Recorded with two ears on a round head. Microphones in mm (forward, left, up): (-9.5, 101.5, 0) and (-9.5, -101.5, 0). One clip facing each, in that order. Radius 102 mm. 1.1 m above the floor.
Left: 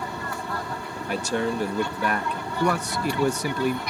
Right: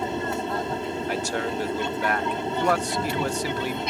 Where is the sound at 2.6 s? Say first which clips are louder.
Left 1 dB; 75° left (ahead or behind).